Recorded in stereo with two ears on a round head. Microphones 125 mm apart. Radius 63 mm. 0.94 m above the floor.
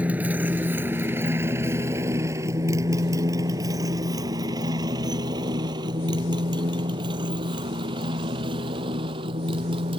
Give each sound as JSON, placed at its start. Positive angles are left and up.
{"t": 0.0, "sound": "a motorcycle", "side_deg": -10}